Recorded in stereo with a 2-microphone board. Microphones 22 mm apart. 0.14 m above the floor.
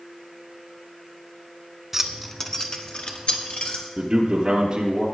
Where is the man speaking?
40° right (ahead or behind), 2.5 m.